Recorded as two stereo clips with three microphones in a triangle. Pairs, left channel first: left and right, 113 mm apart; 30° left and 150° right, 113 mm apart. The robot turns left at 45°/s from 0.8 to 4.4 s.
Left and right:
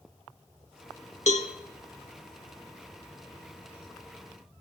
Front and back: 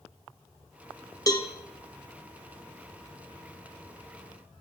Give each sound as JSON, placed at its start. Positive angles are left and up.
{"t": 1.3, "sound": "a cowbell", "azimuth_deg": 85, "distance_m": 0.7}